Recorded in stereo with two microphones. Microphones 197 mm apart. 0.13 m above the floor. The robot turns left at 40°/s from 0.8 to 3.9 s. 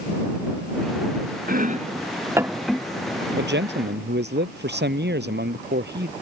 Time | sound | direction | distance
1.5 | chopping | 50° right (ahead or behind) | ?
3.4 | a man speaking | 65° right (ahead or behind) | ?